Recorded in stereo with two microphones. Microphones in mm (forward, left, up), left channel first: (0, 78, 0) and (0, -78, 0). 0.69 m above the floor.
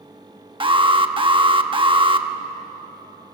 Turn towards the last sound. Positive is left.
turn(degrees=-35)  # may be behind; listen again after turning